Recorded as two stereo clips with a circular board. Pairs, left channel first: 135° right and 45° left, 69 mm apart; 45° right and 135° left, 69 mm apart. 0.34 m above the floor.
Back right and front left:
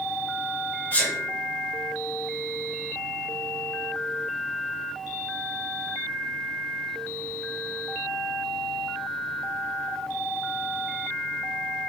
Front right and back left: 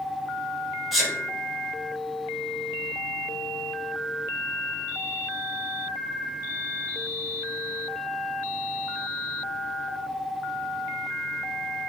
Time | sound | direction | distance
0.9 | a sneeze | 140° right | 0.8 m